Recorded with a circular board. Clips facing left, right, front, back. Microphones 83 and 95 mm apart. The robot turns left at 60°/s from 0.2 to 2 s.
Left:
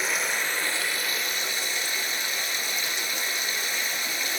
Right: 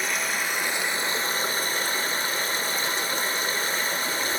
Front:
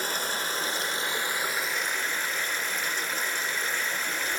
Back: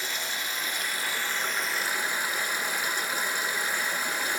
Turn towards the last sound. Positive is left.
turn(degrees=-105)